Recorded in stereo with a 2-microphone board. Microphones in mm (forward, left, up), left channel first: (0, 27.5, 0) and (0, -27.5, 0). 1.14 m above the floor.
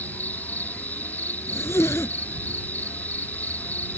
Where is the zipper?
50° left (ahead or behind).